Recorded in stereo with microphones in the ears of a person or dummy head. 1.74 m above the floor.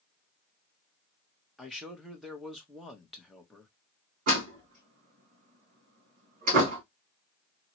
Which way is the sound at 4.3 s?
40° right (ahead or behind).